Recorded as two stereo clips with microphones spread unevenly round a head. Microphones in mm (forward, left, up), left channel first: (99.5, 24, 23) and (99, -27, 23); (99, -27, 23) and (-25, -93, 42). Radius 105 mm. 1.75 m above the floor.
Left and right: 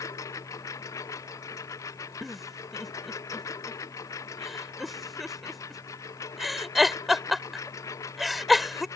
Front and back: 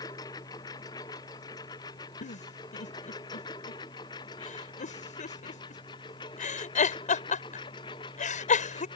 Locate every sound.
0.0 s a lawn mower: 100° left; by 9.0 s 95° left
2.2 s a giggle: straight ahead